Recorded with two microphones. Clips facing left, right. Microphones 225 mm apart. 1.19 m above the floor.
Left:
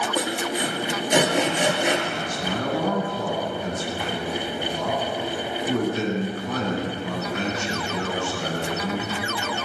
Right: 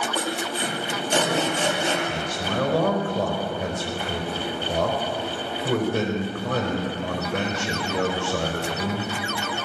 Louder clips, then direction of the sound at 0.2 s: Left 4 dB; 15° left (ahead or behind).